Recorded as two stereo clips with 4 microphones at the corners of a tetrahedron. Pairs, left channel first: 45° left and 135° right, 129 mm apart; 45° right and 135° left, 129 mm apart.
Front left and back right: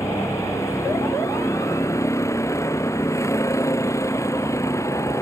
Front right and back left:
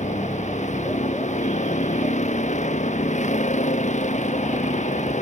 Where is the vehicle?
20° right.